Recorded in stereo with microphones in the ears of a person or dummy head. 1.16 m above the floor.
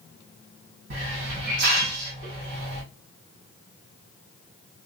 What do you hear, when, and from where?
0.9 s a hiss: 55° right (ahead or behind), 1.6 m